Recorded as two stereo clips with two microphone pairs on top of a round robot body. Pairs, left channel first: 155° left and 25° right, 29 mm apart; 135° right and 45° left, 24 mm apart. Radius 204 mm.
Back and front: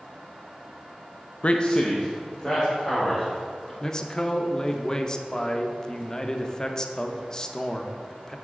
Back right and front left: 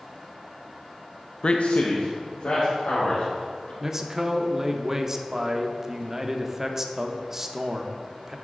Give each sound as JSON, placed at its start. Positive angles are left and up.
{"t": 1.4, "sound": "a man speaking", "azimuth_deg": 180, "distance_m": 0.6}
{"t": 3.8, "sound": "a man speaking", "azimuth_deg": 100, "distance_m": 0.9}